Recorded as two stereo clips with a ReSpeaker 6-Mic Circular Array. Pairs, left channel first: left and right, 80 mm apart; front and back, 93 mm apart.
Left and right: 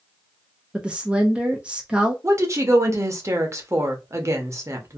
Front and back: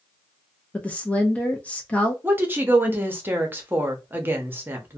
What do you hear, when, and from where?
0.7 s a woman speaking: 40° right, 0.5 m
2.2 s a woman speaking: 120° right, 0.8 m